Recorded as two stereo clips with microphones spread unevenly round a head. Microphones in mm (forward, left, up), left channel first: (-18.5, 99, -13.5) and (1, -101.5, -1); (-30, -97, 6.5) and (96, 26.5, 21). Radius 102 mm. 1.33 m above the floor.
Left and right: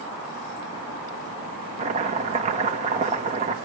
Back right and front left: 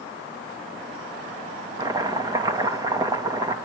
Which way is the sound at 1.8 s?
25° right.